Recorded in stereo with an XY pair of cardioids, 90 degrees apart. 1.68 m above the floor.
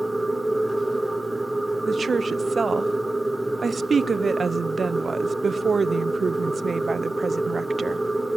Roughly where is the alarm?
No alarm in this recording.